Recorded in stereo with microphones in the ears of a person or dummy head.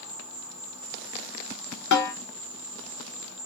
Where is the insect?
75° left (ahead or behind), 0.7 m.